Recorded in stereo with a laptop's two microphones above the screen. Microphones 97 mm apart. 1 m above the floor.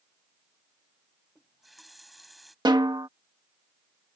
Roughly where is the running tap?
Centre.